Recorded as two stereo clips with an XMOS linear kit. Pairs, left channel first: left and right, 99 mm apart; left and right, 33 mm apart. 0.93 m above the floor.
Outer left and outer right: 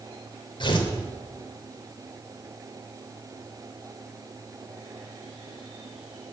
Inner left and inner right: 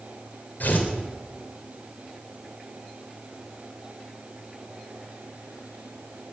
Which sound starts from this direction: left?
Tearing paper, at 0.6 s.